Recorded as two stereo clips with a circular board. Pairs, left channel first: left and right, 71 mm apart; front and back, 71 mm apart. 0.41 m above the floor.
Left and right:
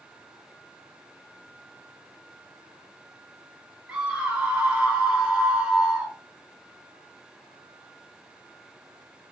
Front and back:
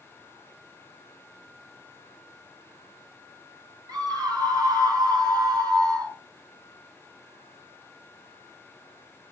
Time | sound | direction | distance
3.9 | a scream | 165° right | 6.5 m